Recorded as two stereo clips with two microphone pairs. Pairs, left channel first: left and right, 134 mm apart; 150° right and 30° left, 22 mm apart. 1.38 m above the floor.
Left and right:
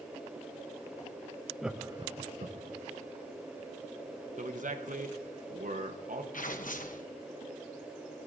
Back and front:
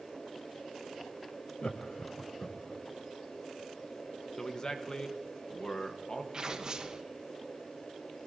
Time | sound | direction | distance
1.6 | laughter | straight behind | 0.7 m
4.4 | a man speaking | 95° right | 1.0 m
6.3 | tearing paper | 85° left | 0.9 m